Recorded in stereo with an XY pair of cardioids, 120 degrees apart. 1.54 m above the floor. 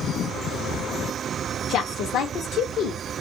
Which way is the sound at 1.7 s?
65° left.